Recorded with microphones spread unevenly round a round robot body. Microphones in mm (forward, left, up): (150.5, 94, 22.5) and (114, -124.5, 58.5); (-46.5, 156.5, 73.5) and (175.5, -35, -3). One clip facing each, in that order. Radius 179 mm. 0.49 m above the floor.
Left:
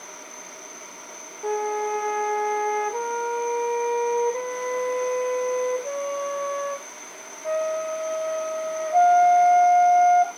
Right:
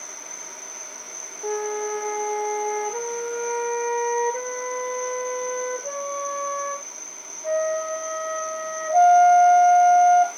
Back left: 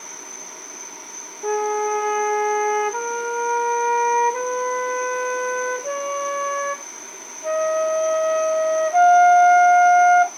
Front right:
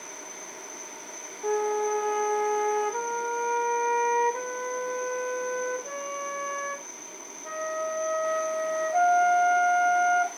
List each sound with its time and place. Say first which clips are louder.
0.0 s an insect: left 1 dB, back left 2 dB; 140° right, 1.1 m
1.4 s a flute: even, back left 4 dB; 170° left, 1.2 m